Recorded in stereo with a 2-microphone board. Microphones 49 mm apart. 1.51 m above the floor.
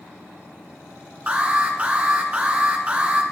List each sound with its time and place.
1.3 s an alarm: 30° right (ahead or behind), 1.3 m